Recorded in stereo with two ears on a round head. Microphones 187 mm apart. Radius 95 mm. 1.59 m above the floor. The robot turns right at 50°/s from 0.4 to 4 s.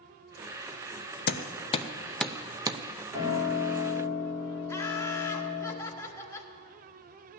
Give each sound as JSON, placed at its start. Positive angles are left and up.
{"t": 1.3, "sound": "hammering", "side_deg": 50, "distance_m": 0.6}
{"t": 3.1, "sound": "a piano", "azimuth_deg": -165, "distance_m": 4.5}
{"t": 4.7, "sound": "laughter", "side_deg": 15, "distance_m": 1.4}